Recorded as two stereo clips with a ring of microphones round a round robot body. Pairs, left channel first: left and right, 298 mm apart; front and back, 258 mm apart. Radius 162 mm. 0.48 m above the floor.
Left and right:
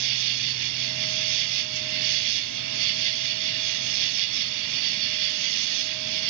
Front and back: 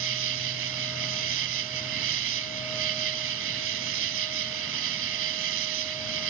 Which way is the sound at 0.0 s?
125° right.